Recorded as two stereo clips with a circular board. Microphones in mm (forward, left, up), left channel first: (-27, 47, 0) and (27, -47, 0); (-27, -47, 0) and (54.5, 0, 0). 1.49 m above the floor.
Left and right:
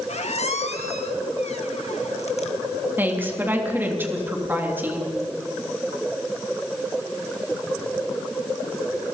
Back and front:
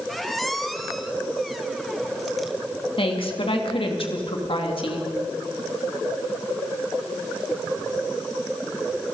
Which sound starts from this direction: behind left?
A squeak, at 0.1 s.